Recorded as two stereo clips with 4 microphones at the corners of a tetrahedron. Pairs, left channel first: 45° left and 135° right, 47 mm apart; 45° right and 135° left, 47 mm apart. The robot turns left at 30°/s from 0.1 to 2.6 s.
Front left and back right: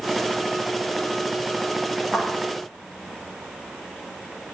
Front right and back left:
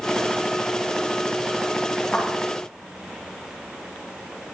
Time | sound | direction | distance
2.1 | a thud | 75° right | 7.5 m